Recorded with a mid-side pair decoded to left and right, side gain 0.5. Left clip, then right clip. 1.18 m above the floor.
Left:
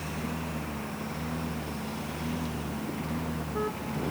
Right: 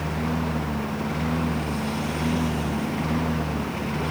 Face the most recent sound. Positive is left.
turn(degrees=-50)